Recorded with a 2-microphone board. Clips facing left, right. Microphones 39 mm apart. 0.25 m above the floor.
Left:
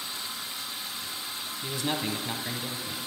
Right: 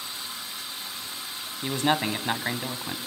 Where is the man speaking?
45° right (ahead or behind), 1.3 m.